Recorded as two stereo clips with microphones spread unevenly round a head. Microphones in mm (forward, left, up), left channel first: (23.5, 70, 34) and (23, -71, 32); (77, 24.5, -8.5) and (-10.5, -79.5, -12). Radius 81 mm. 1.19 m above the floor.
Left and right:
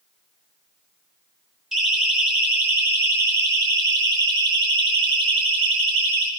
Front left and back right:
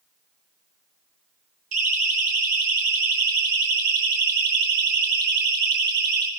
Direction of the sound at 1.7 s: Straight behind.